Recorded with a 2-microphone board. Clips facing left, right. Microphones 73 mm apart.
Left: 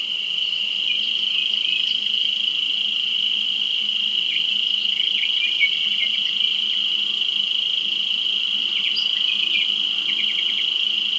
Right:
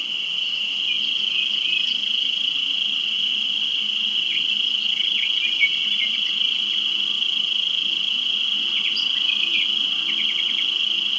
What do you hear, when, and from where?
0.0 s an insect: 15° right (ahead or behind), 2 m